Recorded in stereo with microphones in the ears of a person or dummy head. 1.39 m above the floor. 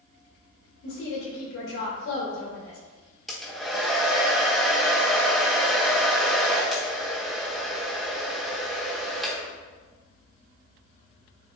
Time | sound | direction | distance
0.8 | a woman speaking | 75° left (ahead or behind) | 2.5 m
3.3 | a hair dryer | centre (ahead or behind) | 1.0 m